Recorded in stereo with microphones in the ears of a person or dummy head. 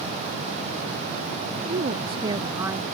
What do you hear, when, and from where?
1.6 s a woman speaking: 40° right (ahead or behind); by 2.9 s 10° right (ahead or behind)